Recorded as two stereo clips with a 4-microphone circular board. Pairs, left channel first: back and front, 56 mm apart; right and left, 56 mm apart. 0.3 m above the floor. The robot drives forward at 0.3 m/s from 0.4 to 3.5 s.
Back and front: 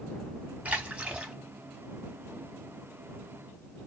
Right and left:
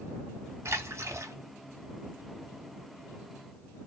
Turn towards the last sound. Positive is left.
turn(degrees=125)